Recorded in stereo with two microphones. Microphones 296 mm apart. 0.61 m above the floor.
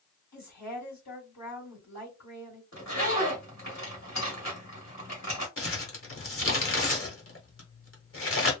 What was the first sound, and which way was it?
A woman speaking, 65° left (ahead or behind).